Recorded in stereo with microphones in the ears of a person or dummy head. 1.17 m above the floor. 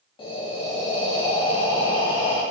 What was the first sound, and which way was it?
Breathing, 30° left (ahead or behind).